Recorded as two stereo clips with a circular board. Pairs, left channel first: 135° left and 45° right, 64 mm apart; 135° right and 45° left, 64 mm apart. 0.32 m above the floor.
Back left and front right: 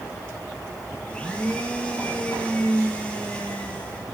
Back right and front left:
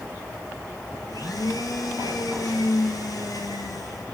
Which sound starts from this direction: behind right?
A blender, at 1.1 s.